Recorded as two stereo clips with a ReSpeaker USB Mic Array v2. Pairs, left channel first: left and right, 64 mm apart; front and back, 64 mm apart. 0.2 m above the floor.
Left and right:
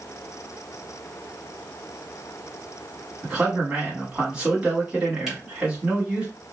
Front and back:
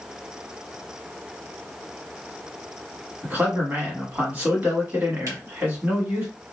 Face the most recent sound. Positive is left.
turn(degrees=-170)